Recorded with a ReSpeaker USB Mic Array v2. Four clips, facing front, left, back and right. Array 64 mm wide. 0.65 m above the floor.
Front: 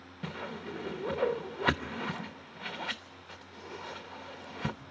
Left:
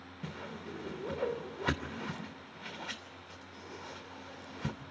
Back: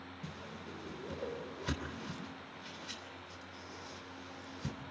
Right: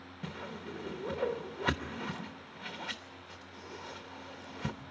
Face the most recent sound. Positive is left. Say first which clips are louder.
# right 1 dB, front 11 dB
turn(degrees=-10)